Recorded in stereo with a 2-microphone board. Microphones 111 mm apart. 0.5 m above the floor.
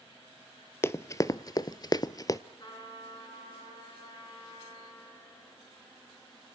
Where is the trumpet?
40° left (ahead or behind), 7 m.